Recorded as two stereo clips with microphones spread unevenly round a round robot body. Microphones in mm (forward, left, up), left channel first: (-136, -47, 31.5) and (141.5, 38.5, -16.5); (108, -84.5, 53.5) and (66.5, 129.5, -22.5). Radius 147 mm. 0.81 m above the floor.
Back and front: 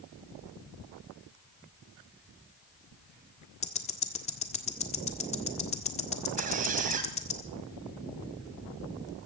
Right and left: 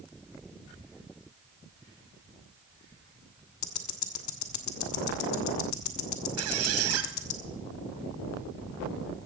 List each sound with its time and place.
3.6 s ticking: 90° right, 1.4 m
6.4 s a squeak: 85° left, 1.8 m